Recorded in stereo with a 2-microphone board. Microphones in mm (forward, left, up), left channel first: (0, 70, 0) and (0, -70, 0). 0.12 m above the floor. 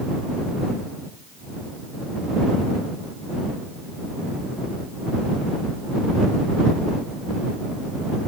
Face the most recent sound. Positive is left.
No sound to turn to.